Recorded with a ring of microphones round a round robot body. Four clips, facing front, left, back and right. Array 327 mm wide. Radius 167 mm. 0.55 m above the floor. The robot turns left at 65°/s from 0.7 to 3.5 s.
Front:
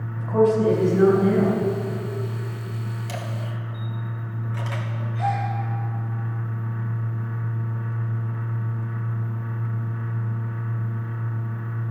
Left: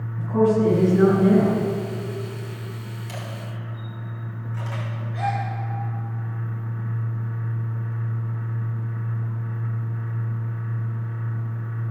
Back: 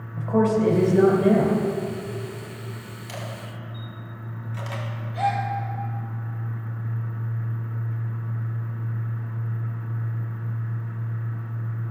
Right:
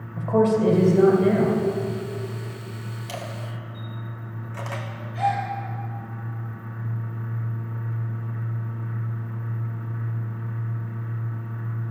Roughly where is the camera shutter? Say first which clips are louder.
Right 2 dB, front 1 dB; ahead right.